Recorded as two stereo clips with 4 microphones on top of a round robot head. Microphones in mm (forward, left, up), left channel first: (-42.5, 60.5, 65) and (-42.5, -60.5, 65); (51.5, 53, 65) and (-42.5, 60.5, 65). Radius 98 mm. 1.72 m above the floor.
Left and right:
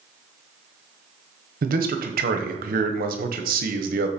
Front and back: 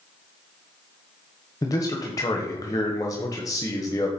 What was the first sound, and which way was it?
A man speaking, 70° right.